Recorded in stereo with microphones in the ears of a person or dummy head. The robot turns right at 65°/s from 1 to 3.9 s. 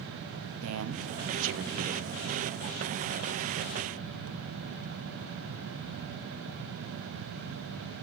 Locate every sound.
0.6 s a man speaking: 100° right, 0.9 m; by 2.1 s 35° right, 0.9 m